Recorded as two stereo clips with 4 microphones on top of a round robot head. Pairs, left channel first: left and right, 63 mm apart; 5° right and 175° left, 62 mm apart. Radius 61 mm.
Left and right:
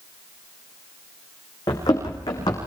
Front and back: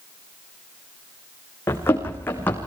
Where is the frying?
I don't hear frying.